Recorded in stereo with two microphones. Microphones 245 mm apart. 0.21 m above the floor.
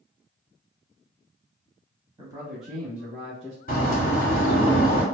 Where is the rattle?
I don't hear a rattle.